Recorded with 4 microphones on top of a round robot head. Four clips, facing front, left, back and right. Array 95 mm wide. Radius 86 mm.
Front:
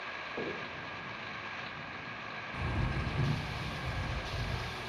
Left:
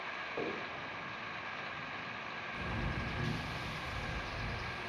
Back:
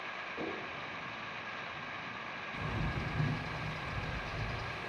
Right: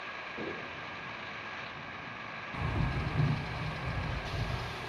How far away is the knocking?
About 2 m.